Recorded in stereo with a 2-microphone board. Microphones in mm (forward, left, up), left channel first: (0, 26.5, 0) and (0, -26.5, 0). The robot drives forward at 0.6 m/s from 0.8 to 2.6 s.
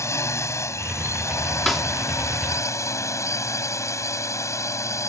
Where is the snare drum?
5° left (ahead or behind).